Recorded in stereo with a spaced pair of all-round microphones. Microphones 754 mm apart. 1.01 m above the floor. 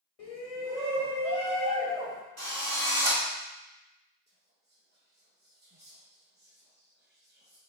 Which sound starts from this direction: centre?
Whispering, at 4.3 s.